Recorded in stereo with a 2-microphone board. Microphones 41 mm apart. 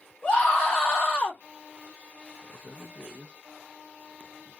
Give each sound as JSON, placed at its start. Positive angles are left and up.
{"t": 0.2, "sound": "a scream", "side_deg": 20, "distance_m": 1.2}
{"t": 2.4, "sound": "a man speaking", "side_deg": -20, "distance_m": 1.2}